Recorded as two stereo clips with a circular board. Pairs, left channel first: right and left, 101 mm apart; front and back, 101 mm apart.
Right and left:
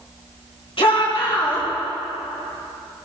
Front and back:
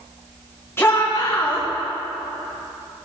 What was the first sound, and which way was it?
A shout, 65° right.